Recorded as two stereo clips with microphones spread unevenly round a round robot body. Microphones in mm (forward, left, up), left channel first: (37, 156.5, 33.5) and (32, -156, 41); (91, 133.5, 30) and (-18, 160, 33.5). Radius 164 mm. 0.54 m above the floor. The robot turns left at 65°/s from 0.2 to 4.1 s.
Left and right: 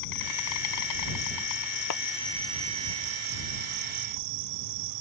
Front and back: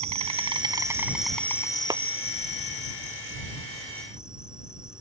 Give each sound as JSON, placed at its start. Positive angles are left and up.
{"t": 0.0, "sound": "an insect", "azimuth_deg": 145}
{"t": 1.9, "sound": "a clap", "azimuth_deg": 115}